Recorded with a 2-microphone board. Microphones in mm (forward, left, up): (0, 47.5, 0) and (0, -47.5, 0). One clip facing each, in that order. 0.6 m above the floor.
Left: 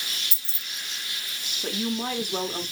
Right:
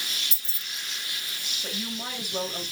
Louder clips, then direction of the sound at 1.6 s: Left 8 dB; 55° left (ahead or behind).